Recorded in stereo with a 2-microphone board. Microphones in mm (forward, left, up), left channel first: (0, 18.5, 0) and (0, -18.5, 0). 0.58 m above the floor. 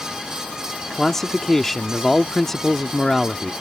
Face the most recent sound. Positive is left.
turn(degrees=10)  # may be behind; listen again after turning